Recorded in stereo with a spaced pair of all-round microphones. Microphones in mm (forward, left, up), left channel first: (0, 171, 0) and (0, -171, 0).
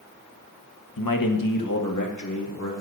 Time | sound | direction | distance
1.0 | a man speaking | 85° left | 1.1 m